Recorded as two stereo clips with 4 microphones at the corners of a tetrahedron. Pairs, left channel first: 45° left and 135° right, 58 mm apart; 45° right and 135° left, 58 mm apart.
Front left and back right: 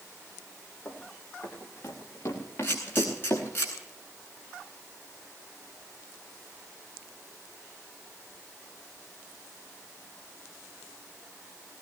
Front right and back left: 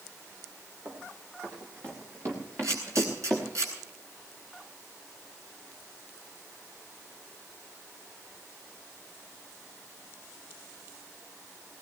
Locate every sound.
0.8 s running footsteps: 95° left, 7.5 m; by 3.5 s 85° left, 5.5 m
2.6 s a camera shutter: 100° left, 9 m